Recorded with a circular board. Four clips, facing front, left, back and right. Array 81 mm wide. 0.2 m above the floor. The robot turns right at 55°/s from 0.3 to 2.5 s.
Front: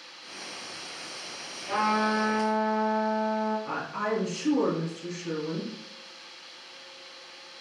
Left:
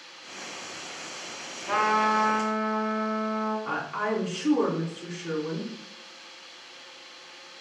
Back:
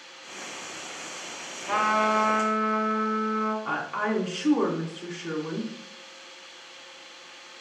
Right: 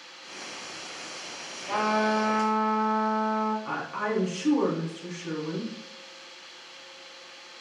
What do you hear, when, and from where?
1.7 s a trumpet: 135° left, 1.8 m; by 3.5 s straight behind, 1.8 m
3.6 s a woman speaking: 165° left, 2.0 m